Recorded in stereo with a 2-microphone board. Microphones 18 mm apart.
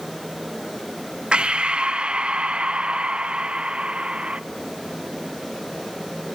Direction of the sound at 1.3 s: 60° right (ahead or behind).